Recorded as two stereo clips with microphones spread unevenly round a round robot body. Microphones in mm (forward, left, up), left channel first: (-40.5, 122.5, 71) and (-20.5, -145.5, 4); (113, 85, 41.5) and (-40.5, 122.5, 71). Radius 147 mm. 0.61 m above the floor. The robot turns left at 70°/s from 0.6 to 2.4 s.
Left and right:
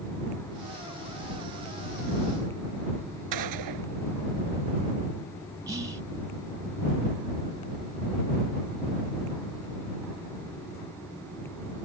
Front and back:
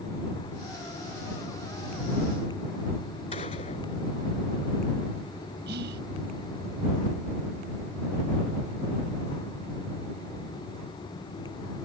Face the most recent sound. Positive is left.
turn(degrees=-160)